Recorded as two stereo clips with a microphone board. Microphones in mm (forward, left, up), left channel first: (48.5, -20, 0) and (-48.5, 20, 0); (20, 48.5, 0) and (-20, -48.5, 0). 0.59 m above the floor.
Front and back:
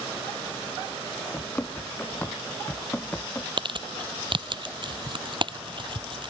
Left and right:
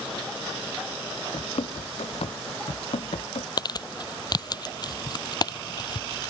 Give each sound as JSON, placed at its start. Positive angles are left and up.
{"t": 1.3, "sound": "running footsteps", "azimuth_deg": 50}
{"t": 3.6, "sound": "crumpling", "azimuth_deg": 120}